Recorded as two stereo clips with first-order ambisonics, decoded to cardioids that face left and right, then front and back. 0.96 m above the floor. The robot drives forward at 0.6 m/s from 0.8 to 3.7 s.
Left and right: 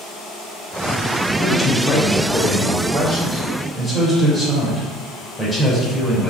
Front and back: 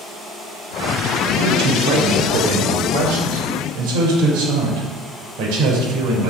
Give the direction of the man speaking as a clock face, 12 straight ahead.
7 o'clock.